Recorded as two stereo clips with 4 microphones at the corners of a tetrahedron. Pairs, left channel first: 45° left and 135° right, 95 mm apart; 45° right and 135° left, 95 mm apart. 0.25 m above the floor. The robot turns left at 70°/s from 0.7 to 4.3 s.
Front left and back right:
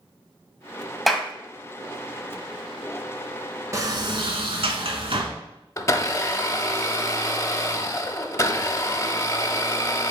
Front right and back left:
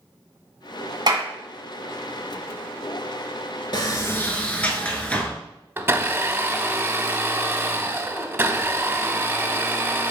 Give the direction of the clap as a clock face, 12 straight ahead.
8 o'clock.